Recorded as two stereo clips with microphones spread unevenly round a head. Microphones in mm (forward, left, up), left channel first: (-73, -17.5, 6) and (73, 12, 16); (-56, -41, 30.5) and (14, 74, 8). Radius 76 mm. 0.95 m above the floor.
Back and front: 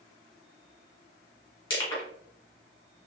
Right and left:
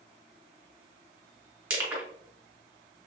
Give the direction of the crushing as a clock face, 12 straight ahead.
8 o'clock.